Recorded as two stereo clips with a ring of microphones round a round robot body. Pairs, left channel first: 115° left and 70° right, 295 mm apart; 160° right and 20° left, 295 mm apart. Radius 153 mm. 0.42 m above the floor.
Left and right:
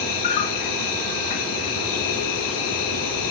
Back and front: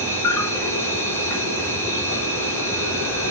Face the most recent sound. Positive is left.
turn(degrees=120)